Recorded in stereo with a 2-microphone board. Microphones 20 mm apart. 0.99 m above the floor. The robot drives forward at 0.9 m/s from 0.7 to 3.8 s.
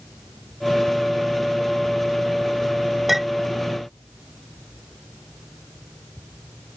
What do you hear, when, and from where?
3.1 s a clink: 15° right (ahead or behind)